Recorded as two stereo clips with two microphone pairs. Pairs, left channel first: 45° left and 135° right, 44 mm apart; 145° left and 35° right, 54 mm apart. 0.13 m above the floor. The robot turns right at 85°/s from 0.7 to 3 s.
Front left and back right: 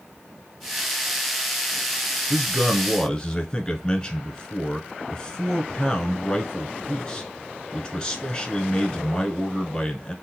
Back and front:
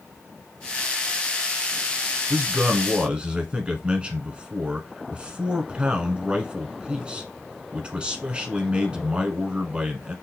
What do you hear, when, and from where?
2.3 s a man speaking: 50° right, 1.1 m; by 10.2 s 5° left, 1.1 m